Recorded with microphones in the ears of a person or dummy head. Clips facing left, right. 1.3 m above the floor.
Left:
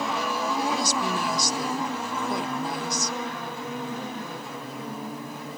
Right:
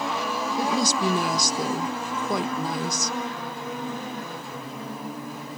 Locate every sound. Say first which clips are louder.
0.6 s a woman speaking: right 6 dB; 80° right, 1.2 m